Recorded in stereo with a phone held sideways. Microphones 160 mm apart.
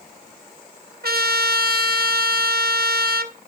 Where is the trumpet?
75° right (ahead or behind), 1.0 m.